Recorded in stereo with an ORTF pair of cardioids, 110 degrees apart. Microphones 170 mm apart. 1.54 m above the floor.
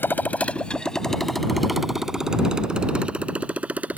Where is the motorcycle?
10° left; by 4.0 s 10° right.